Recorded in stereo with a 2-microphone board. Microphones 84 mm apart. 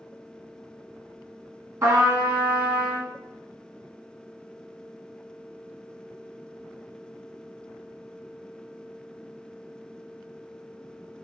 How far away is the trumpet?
About 1.3 m.